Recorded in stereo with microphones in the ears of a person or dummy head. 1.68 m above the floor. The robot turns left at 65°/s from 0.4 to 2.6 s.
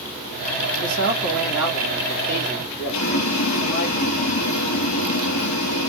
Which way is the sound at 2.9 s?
75° left (ahead or behind).